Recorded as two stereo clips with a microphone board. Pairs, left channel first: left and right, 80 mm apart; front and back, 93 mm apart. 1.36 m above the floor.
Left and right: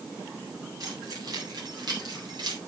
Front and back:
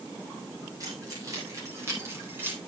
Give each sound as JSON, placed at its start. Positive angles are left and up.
{"t": 0.8, "sound": "keys jangling", "azimuth_deg": -130, "distance_m": 5.0}